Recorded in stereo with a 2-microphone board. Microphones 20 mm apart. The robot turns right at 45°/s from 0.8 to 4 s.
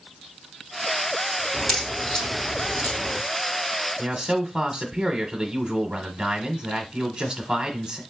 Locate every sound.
1.5 s a crack: 5° left (ahead or behind), 2.5 m; by 3.2 s 80° left, 2.5 m
4.0 s a man speaking: 20° right (ahead or behind), 1.2 m